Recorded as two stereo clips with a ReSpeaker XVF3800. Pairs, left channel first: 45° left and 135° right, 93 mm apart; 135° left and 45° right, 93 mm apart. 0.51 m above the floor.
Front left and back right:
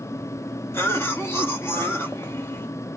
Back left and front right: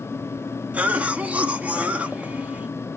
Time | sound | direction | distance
0.7 | a cough | 15° left | 1.2 m